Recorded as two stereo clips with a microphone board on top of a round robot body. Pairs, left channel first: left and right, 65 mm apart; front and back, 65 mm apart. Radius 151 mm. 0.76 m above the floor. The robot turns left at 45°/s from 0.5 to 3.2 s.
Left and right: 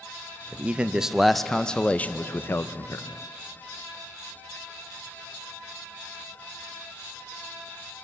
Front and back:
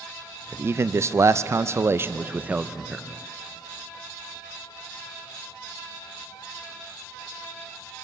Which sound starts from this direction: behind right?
A man speaking, at 0.5 s.